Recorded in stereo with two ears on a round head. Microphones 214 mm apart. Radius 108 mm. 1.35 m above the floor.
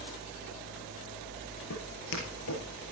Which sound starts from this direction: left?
Footsteps, at 1.7 s.